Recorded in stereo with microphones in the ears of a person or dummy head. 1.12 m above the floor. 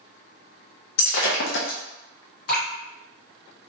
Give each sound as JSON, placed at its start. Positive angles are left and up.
{"t": 1.0, "sound": "breaking glass", "side_deg": 65, "distance_m": 0.6}
{"t": 2.5, "sound": "dripping", "side_deg": 55, "distance_m": 1.8}